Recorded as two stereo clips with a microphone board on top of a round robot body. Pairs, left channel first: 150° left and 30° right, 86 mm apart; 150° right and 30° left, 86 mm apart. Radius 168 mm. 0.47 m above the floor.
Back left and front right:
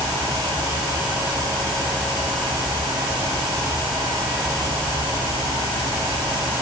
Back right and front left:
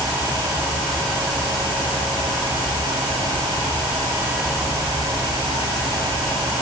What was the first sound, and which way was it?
Only background noise.